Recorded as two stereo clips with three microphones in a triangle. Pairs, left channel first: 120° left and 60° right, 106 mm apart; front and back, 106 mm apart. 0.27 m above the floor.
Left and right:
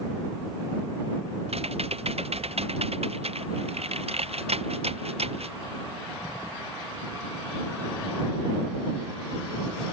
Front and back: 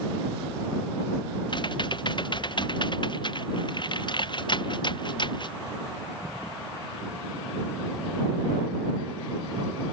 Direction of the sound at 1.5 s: 45° right.